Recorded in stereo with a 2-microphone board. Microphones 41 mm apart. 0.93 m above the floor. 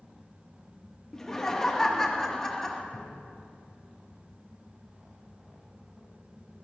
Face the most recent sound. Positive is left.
turn(degrees=50)  # may be behind; listen again after turning